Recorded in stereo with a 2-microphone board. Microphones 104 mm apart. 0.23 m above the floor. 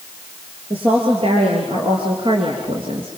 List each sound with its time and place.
0.7 s a woman speaking: 65° right (ahead or behind), 5 m; by 3.1 s 60° right (ahead or behind), 3 m